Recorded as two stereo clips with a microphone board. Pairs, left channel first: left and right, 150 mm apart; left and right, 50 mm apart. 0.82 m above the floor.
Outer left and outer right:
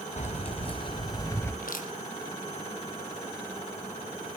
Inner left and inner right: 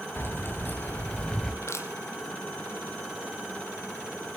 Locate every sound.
0.2 s keys jangling: 50° left (ahead or behind), 3.5 m; by 1.5 s 15° left (ahead or behind), 2.5 m
1.6 s crushing: 65° left (ahead or behind), 4 m